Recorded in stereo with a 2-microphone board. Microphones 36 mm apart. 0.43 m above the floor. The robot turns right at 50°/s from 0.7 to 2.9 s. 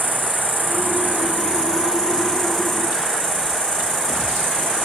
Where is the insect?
90° right, 4 m; by 4.9 s 20° left, 4 m.